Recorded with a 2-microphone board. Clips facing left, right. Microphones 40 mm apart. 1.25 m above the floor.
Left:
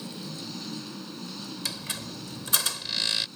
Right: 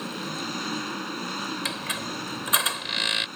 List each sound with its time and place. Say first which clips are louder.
0.0 s an engine running: right 6 dB; 60° right (ahead or behind)
1.6 s a squeak: right 6 dB; 35° right (ahead or behind)